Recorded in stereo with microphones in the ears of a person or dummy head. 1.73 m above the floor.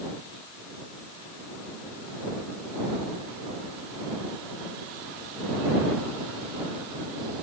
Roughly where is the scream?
No scream in this recording.